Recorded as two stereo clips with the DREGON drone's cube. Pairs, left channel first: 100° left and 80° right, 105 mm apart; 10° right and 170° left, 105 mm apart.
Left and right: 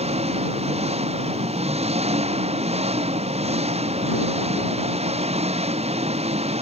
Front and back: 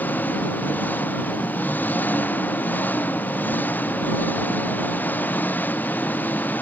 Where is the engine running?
85° right.